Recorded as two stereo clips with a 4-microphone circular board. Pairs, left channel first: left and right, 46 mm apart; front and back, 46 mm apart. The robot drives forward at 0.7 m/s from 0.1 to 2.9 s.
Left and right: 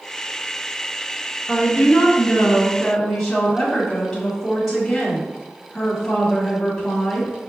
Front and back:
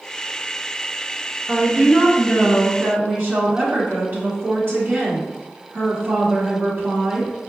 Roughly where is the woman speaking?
Behind left.